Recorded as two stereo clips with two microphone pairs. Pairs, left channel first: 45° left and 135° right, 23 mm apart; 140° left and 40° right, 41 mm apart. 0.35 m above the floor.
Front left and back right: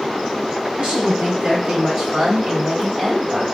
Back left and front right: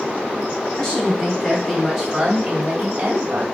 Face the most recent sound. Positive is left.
turn(degrees=-75)